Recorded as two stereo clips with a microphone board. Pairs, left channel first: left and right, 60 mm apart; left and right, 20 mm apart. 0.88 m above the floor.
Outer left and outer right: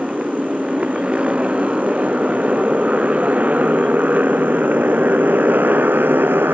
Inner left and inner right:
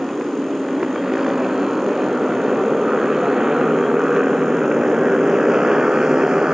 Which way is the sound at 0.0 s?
15° right (ahead or behind).